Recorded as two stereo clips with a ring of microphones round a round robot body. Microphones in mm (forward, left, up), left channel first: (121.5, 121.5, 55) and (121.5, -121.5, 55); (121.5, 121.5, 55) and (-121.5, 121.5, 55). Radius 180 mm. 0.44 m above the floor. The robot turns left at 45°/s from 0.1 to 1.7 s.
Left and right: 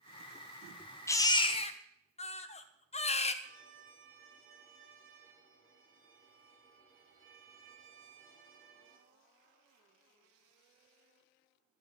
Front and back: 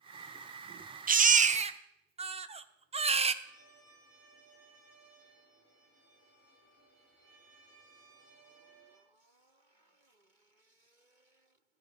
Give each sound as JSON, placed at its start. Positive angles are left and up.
{"t": 1.1, "sound": "a baby crying", "azimuth_deg": 160, "distance_m": 1.0}
{"t": 3.4, "sound": "a violin", "azimuth_deg": -55, "distance_m": 5.0}